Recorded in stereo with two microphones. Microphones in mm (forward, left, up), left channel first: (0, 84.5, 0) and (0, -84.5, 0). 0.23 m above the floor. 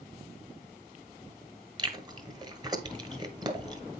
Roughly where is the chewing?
Right.